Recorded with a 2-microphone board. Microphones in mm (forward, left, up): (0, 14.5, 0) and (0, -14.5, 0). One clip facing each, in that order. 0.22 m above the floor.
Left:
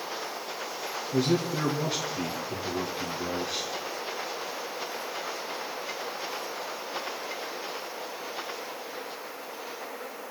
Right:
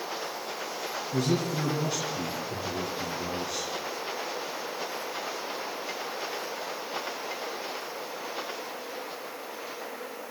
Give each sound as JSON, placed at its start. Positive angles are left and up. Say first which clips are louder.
{"t": 1.1, "sound": "a man speaking", "louder": "left 2 dB", "side_deg": 25, "distance_m": 2.5}